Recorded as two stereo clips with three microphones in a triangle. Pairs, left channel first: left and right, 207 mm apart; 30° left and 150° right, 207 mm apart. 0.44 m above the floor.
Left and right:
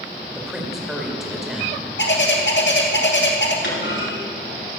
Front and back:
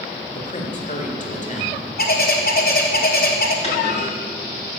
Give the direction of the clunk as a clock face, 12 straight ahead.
9 o'clock.